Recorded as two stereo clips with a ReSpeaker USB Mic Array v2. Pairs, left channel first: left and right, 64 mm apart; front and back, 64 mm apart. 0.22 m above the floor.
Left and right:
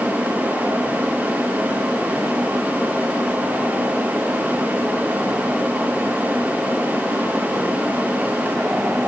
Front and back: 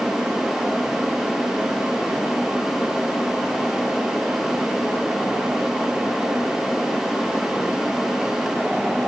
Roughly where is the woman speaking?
No woman speaking in this recording.